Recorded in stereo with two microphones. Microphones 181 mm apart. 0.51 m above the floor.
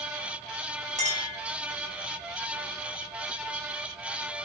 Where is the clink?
40° right (ahead or behind), 0.8 m.